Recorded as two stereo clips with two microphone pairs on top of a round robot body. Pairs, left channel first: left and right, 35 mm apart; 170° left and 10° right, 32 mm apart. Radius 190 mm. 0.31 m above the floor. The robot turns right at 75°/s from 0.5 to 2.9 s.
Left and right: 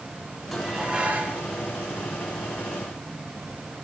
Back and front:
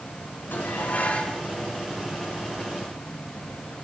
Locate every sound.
0.5 s dishes clattering: 175° left, 5 m; by 1.4 s 120° right, 5 m